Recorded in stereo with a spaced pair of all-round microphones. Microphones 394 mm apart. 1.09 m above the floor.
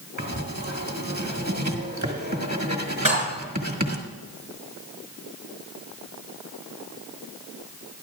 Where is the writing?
45° right (ahead or behind), 1.5 m.